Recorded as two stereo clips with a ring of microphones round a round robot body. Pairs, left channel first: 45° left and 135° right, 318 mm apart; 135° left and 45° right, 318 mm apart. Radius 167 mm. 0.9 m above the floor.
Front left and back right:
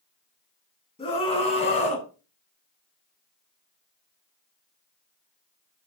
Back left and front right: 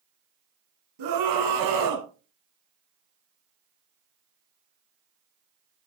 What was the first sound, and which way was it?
A scream, 30° right.